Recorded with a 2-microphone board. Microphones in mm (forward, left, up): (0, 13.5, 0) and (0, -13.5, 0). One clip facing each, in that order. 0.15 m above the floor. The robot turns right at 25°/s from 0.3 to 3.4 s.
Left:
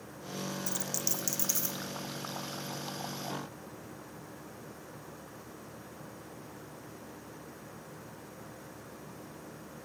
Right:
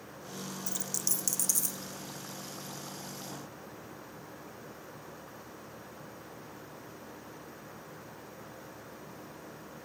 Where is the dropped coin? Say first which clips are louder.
Left 1 dB; centre (ahead or behind), 0.9 m; by 1.8 s 30° left (ahead or behind), 0.9 m.